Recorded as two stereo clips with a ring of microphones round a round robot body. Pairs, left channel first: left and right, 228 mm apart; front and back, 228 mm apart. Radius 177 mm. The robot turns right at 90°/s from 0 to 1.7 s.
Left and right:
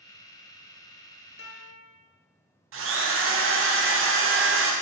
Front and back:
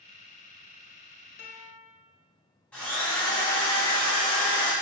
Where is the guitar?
45° left, 0.8 m; by 1.9 s 70° left, 0.8 m.